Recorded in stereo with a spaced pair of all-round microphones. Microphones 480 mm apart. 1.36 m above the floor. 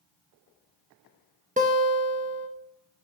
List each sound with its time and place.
1.6 s a guitar: 15° right (ahead or behind), 0.8 m